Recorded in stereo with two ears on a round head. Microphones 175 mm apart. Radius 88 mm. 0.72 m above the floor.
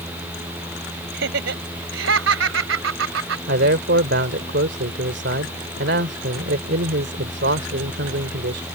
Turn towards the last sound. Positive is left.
turn(degrees=-65)  # may be behind; listen again after turning